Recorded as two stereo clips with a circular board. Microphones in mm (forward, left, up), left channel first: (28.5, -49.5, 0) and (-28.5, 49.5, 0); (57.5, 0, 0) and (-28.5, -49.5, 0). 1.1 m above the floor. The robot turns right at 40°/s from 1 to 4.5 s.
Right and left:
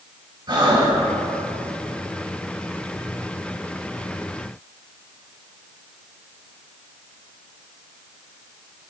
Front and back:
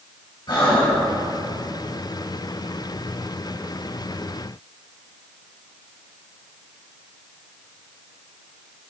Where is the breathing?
70° left, 3 m.